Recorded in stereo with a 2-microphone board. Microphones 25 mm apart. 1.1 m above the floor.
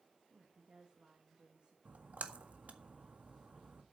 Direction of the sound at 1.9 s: 80° right.